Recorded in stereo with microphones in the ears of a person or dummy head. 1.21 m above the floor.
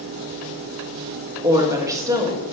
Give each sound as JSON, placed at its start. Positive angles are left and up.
{"t": 1.4, "sound": "a woman speaking", "side_deg": -20, "distance_m": 1.7}